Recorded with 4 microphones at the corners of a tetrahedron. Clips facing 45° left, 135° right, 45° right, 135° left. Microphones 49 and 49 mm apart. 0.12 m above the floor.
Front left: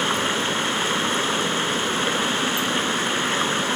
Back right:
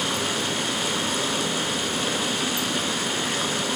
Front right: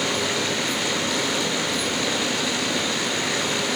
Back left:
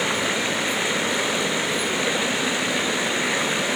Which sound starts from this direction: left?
Running water, at 0.0 s.